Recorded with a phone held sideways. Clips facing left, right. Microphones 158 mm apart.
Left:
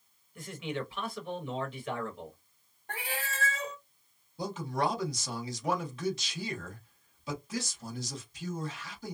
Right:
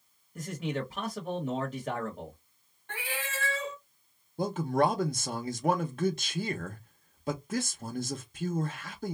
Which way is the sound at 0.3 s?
45° right (ahead or behind).